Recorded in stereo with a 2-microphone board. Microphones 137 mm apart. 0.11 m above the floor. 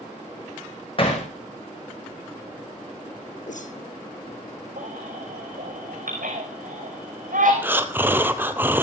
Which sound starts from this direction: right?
A baby crying, at 4.8 s.